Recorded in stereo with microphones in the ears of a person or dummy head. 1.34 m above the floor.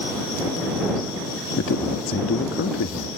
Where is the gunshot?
I don't hear a gunshot.